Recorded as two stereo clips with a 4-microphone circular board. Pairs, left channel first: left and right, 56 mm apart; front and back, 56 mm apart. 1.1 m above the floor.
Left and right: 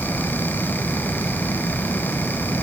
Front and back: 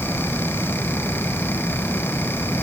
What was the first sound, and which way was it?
Only background noise.